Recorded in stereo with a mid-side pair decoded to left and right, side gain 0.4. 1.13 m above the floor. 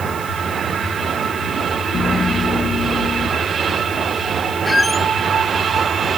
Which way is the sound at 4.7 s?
15° left.